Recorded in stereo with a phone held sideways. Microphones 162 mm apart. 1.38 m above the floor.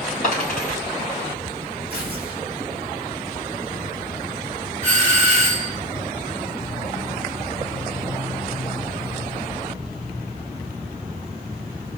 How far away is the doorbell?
About 4 m.